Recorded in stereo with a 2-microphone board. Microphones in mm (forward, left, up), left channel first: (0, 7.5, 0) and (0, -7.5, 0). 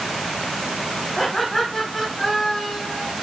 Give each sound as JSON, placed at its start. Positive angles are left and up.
{"t": 1.2, "sound": "laughter", "side_deg": 20, "distance_m": 7.5}